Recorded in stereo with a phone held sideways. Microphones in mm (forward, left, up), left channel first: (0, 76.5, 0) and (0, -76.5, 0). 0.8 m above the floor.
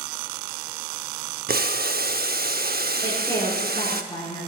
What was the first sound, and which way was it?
Boiling, 70° right (ahead or behind).